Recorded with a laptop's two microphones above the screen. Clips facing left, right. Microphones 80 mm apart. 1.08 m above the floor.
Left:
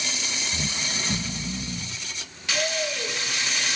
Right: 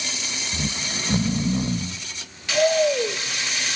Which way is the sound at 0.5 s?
55° right (ahead or behind).